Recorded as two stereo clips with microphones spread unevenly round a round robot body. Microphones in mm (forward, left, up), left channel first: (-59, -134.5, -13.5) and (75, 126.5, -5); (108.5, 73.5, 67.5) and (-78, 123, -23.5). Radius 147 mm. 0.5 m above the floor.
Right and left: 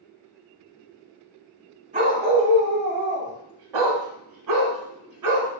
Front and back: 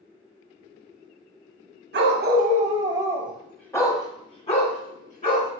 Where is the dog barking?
130° left, 1.1 m; by 5.5 s 30° left, 1.9 m.